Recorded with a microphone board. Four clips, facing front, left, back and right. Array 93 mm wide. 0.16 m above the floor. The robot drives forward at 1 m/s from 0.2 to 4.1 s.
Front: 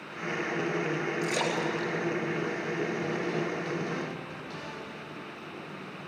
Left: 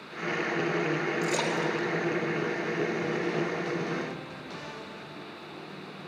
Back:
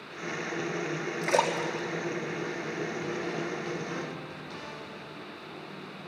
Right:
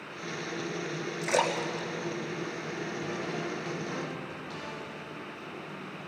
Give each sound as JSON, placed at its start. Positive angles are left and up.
{"t": 1.2, "sound": "a splash", "azimuth_deg": -165, "distance_m": 4.0}